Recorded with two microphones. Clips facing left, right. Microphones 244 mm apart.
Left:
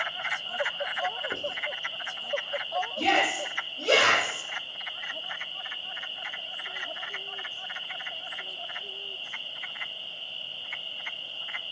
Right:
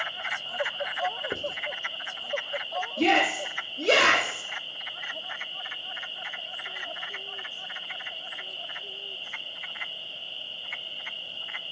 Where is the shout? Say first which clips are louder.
Right 5 dB; 20° right (ahead or behind), 2.5 m.